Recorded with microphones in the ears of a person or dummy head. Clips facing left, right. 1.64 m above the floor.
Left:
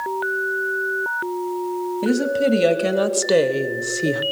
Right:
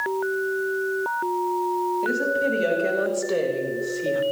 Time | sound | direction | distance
2.0 | a woman speaking | 75° left (ahead or behind) | 2.5 m